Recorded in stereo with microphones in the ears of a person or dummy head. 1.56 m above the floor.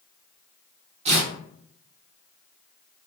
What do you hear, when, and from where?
1.1 s tearing paper: 30° right (ahead or behind), 0.7 m